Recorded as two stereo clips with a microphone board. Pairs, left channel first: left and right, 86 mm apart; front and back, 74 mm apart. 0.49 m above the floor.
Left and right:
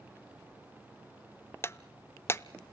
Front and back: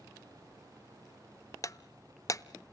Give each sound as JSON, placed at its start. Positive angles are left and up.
{"t": 1.6, "sound": "breaking glass", "azimuth_deg": 35, "distance_m": 0.6}